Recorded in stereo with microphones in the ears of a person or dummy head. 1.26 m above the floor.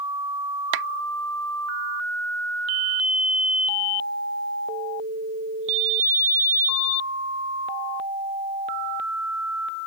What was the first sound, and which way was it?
A clap, 70° right (ahead or behind).